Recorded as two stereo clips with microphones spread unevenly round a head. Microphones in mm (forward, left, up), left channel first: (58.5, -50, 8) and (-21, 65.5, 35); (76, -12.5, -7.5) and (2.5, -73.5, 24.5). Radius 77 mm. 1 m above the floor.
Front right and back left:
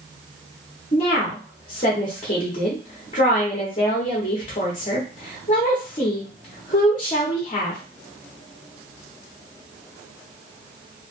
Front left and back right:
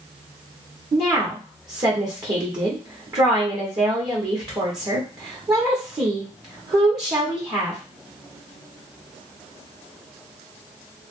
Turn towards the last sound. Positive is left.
turn(degrees=-85)